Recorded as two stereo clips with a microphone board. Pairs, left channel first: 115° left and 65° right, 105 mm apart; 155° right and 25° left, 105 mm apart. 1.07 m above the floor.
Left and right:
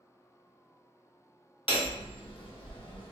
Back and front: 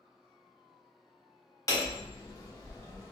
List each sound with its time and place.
1.7 s hammering: 145° left, 1.0 m